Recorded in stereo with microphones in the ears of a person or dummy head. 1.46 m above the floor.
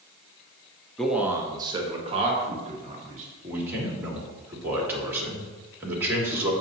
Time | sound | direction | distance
1.0 | a man speaking | 5° left (ahead or behind) | 0.6 m
3.4 | a man speaking | 15° right (ahead or behind) | 1.8 m